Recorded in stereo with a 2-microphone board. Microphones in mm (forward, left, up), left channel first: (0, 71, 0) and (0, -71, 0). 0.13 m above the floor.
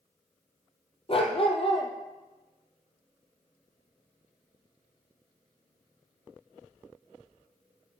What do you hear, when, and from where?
1.1 s a dog barking: 40° left (ahead or behind), 2 m